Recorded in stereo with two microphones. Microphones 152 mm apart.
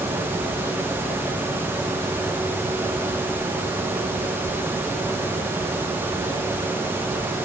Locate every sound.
Only background noise.